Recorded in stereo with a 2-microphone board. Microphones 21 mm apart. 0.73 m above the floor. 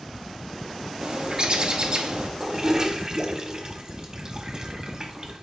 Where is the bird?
45° right (ahead or behind), 0.9 m.